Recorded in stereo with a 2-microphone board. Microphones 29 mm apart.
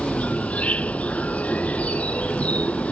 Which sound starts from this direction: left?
An insect, at 0.0 s.